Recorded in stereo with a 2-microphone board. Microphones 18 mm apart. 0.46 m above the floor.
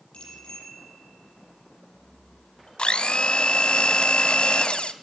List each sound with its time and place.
0.1 s a bicycle bell: 75° left (ahead or behind), 9.5 m
2.8 s a blender: 80° left, 0.9 m